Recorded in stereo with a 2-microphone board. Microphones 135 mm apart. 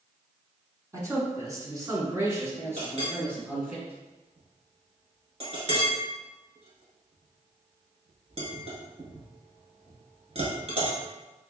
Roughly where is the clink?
Right.